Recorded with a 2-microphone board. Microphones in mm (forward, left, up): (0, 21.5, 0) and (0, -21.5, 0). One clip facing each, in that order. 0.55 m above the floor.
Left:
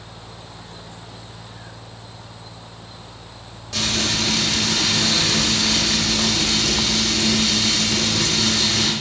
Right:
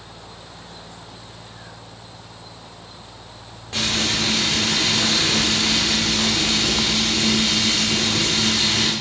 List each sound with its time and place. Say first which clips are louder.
3.7 s frying: even; 30° right (ahead or behind), 1.6 m